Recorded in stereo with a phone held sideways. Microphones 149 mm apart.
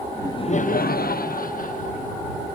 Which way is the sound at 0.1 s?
15° left (ahead or behind).